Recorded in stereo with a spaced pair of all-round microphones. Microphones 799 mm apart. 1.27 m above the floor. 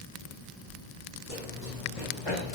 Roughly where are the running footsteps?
Left.